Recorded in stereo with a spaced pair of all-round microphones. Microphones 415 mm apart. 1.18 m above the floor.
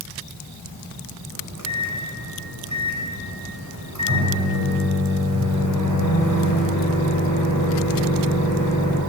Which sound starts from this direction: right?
A microwave, at 1.3 s.